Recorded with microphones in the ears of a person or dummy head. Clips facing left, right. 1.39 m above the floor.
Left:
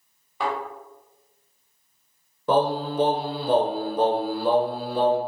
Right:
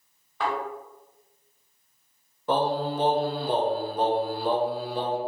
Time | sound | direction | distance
0.4 | a thud | 10° left (ahead or behind) | 1.6 m
2.5 | singing | 65° left (ahead or behind) | 0.7 m